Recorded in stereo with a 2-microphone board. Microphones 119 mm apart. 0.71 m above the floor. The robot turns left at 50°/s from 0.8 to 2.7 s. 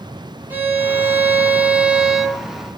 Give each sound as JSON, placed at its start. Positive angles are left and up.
{"t": 0.5, "sound": "a violin", "side_deg": -20, "distance_m": 0.5}